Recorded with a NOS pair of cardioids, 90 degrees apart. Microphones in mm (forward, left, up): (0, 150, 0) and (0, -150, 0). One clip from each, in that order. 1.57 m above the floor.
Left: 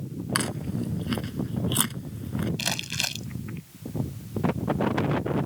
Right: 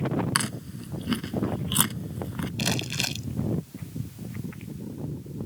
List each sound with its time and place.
0.3 s chewing: 15° right
2.6 s crumpling: straight ahead